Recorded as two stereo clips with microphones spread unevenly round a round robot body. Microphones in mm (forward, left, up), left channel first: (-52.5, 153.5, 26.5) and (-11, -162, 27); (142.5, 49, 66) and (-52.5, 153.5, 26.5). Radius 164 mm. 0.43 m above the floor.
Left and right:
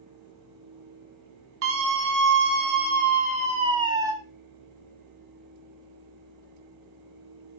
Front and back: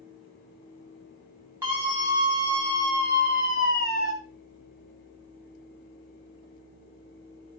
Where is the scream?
130° right, 4 m; by 4.1 s 165° right, 3 m.